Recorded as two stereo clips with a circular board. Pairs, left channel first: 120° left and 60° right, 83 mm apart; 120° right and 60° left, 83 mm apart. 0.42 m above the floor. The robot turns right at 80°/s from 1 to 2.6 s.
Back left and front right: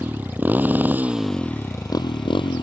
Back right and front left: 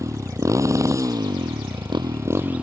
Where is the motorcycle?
10° left; by 2.6 s 135° left.